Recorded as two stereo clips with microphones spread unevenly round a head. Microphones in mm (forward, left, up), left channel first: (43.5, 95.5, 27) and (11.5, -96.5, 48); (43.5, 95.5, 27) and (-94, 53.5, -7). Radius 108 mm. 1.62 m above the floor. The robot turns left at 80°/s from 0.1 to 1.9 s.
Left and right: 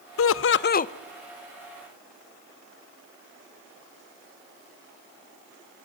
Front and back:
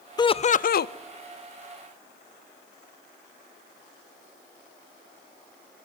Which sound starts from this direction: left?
Laughter, at 0.2 s.